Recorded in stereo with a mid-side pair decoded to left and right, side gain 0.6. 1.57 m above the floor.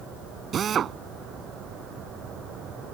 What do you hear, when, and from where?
0.5 s a drill: 45° right